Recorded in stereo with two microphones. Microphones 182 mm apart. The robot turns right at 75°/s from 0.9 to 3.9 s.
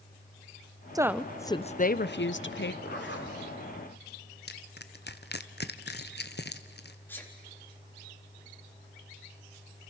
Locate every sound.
0.9 s a woman speaking: 20° right, 0.7 m; by 2.7 s 115° left, 0.7 m
2.8 s a zipper: 60° left, 2.5 m; by 3.4 s 100° left, 2.5 m
4.5 s crushing: 60° left (ahead or behind), 1.0 m
7.1 s a sneeze: 10° left (ahead or behind), 4 m